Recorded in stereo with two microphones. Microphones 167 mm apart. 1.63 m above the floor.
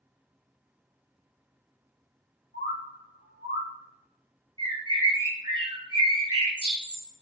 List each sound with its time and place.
2.5 s a bird: 85° left, 0.6 m
4.6 s a bird: 25° right (ahead or behind), 1.9 m